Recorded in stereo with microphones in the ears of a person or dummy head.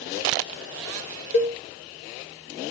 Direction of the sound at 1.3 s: 45° left (ahead or behind).